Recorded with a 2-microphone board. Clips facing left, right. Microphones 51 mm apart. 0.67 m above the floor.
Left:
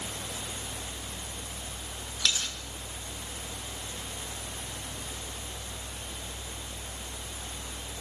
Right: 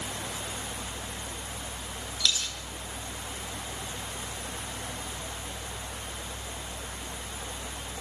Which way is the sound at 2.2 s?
30° left (ahead or behind).